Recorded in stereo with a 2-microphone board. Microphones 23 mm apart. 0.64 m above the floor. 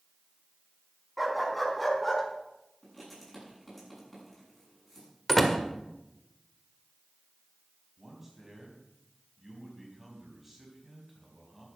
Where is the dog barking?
5° right (ahead or behind), 2.5 m; by 2.2 s 15° left (ahead or behind), 3.5 m.